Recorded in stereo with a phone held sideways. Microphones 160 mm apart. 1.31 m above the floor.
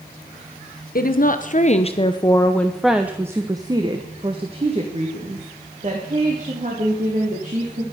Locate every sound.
0.9 s a woman speaking: 65° left (ahead or behind), 1.1 m; by 7.8 s 55° right (ahead or behind), 3.5 m